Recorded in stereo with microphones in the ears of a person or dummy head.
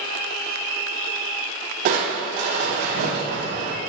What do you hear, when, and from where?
1.9 s crushing: 50° right (ahead or behind), 0.6 m